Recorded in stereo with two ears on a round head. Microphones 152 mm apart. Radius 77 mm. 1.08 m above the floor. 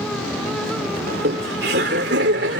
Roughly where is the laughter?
Right.